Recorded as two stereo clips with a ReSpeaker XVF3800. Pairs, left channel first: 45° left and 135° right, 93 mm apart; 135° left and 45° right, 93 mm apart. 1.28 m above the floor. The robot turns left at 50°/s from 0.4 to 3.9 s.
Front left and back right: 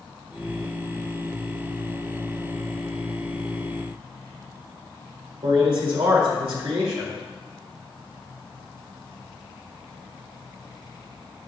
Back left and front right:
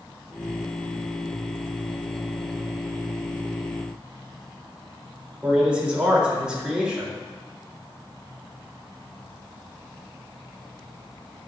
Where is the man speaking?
125° right, 3 m.